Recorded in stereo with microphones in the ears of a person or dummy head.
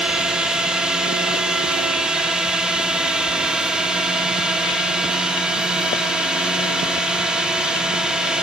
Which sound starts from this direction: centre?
A drone, at 0.0 s.